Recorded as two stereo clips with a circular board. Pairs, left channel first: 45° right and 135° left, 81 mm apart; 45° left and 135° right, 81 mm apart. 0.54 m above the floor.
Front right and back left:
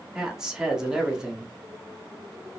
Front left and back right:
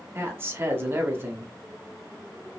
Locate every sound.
0.1 s a man speaking: 150° right, 0.8 m